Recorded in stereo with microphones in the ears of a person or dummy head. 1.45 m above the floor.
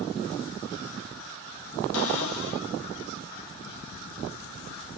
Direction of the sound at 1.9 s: 80° left.